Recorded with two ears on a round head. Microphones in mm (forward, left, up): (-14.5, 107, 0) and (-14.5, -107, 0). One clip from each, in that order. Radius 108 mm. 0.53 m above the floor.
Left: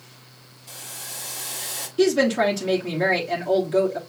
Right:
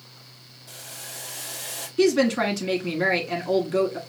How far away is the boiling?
About 1.5 m.